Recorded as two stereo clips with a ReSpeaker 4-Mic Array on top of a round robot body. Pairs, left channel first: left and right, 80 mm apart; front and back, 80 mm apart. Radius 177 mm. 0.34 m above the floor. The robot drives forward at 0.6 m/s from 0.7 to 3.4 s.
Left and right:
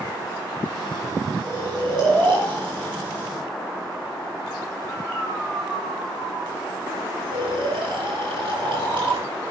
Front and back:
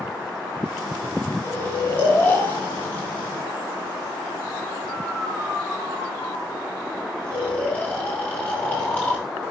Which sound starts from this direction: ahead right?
Snoring, at 1.4 s.